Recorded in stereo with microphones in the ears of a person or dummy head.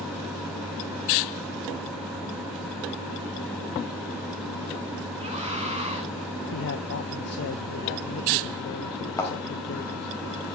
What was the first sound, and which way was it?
A scream, 35° right (ahead or behind).